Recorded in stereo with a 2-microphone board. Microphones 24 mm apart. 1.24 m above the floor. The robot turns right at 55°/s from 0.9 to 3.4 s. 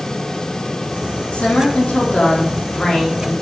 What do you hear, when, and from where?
1.3 s a woman speaking: 60° left, 3 m; by 3.3 s 175° left, 3 m